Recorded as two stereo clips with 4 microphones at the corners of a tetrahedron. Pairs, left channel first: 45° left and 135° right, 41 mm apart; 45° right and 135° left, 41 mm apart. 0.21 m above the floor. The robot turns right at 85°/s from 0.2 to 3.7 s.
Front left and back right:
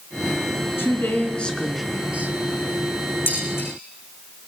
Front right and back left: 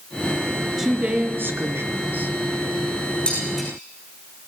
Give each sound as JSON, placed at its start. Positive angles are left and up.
{"t": 0.8, "sound": "a woman speaking", "azimuth_deg": 55, "distance_m": 2.5}
{"t": 3.3, "sound": "dishes clattering", "azimuth_deg": 15, "distance_m": 10.0}